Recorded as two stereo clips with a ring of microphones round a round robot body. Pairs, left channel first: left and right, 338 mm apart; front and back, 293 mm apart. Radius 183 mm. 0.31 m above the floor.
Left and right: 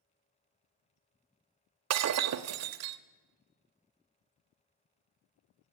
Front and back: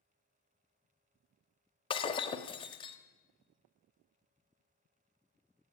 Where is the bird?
No bird in this recording.